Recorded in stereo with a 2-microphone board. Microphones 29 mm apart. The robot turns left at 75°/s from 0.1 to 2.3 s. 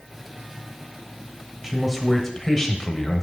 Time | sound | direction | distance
1.6 | a man speaking | 155° right | 1.1 m